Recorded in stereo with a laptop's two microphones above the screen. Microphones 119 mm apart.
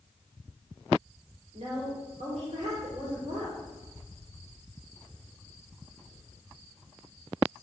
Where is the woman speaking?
65° right (ahead or behind), 4 m.